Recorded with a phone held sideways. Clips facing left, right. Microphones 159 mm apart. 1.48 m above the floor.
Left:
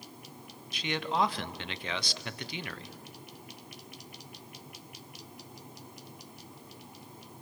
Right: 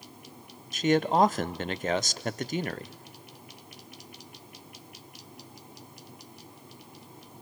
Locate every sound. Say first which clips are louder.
0.7 s a man speaking: right 8 dB; 45° right (ahead or behind), 0.6 m